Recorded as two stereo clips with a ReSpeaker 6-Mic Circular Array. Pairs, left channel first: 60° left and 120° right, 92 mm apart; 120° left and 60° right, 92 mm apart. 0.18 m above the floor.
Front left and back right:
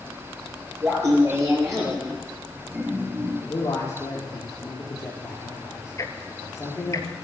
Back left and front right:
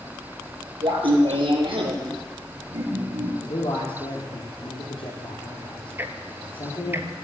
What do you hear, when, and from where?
0.8 s laughter: 65° right, 4.5 m; by 3.3 s 50° right, 3.5 m
3.4 s a man speaking: 115° left, 4 m
6.0 s ticking: 5° left, 1.0 m